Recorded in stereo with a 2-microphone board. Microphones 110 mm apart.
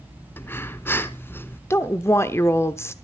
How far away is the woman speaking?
About 0.8 m.